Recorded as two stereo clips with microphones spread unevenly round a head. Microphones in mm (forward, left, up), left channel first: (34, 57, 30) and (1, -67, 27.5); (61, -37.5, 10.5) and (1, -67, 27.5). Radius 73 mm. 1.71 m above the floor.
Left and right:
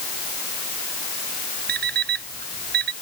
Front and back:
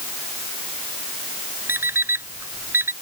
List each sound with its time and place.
1.7 s an alarm clock: 105° right